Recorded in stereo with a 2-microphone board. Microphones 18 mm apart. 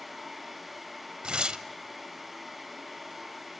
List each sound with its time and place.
1.2 s tearing paper: 65° right (ahead or behind), 0.9 m